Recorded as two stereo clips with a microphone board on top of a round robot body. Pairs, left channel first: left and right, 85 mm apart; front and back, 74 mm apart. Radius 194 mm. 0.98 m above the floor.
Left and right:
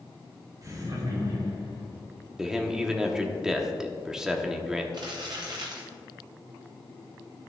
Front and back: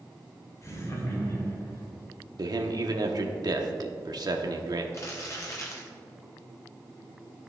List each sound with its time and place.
0.6 s laughter: 45° right, 2 m; by 1.9 s 55° right, 4 m
2.4 s a man speaking: 175° right, 1.1 m
4.9 s crumpling: 50° right, 0.5 m